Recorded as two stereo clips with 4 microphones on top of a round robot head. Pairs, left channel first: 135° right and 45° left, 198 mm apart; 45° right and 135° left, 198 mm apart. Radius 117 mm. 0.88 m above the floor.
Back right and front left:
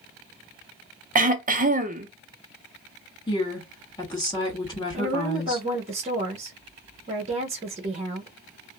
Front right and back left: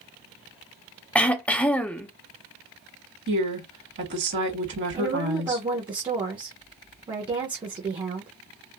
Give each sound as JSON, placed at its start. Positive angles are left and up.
{"t": 1.1, "sound": "throat clearing", "azimuth_deg": 35, "distance_m": 0.5}
{"t": 3.3, "sound": "a woman speaking", "azimuth_deg": 155, "distance_m": 2.0}
{"t": 4.9, "sound": "a woman speaking", "azimuth_deg": 80, "distance_m": 1.0}